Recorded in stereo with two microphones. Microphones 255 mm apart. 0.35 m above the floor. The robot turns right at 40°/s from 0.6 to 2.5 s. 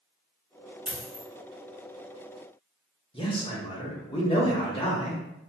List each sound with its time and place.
0.9 s a dropped coin: 50° right (ahead or behind), 1.1 m; by 1.2 s 70° right (ahead or behind), 1.1 m
3.1 s a man speaking: 20° left (ahead or behind), 0.9 m